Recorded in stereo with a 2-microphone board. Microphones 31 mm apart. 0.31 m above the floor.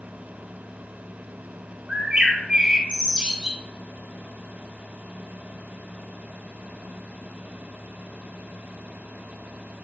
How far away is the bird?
About 1.3 m.